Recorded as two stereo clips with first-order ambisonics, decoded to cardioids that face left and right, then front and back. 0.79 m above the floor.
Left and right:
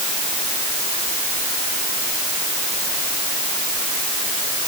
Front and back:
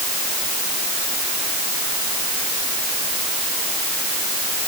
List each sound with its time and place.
Only background noise.